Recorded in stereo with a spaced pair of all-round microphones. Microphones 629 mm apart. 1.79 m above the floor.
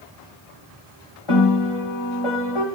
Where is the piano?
50° left (ahead or behind), 2.5 m.